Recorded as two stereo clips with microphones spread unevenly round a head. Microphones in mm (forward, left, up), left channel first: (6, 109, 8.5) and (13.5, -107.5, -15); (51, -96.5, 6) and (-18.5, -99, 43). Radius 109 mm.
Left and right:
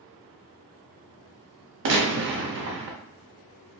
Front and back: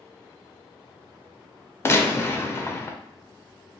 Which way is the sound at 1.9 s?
50° right.